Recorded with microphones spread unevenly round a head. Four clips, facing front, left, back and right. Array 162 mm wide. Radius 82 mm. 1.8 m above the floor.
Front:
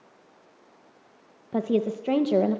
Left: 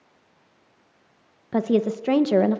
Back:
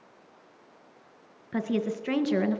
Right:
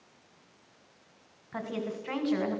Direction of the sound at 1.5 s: 65° left.